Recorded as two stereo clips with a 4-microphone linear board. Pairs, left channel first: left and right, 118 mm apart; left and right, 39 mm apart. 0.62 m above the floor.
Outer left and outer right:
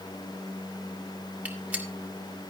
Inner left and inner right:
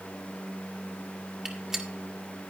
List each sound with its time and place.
1.4 s a gunshot: 15° right (ahead or behind), 1.5 m